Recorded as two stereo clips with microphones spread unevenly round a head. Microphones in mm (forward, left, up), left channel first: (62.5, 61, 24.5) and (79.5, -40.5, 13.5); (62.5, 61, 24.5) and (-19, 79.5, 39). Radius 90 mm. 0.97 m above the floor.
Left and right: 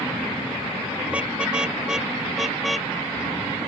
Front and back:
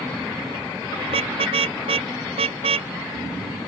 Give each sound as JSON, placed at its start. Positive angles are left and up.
{"t": 1.1, "sound": "a car horn", "azimuth_deg": -165}